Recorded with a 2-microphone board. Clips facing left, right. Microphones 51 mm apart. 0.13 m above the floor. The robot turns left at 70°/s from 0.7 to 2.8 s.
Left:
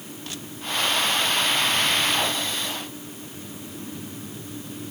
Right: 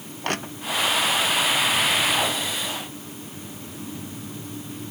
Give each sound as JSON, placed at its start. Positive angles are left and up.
{"t": 0.2, "sound": "crushing", "side_deg": -55}